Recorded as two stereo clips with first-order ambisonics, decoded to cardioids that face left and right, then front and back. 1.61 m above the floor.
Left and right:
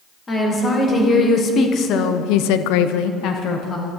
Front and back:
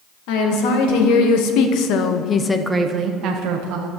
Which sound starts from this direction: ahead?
A woman speaking, at 0.3 s.